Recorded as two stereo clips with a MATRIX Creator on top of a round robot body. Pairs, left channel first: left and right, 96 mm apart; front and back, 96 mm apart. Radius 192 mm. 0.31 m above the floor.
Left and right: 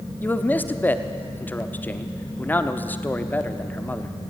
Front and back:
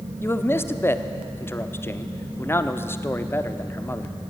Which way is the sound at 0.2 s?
40° left.